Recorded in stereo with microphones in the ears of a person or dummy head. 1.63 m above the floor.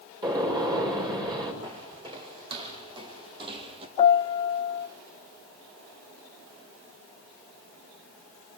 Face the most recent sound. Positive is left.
turn(degrees=40)  # may be behind; listen again after turning